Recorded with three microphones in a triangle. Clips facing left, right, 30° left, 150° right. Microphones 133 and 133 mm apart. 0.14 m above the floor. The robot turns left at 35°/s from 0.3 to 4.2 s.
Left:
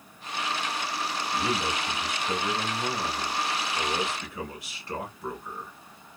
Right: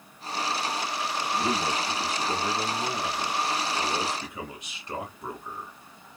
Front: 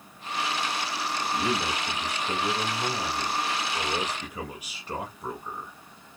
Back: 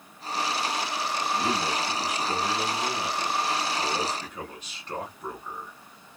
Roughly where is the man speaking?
Ahead left.